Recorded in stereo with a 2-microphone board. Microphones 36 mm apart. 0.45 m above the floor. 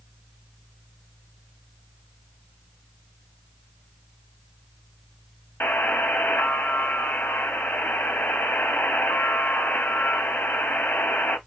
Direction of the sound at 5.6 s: 75° left (ahead or behind).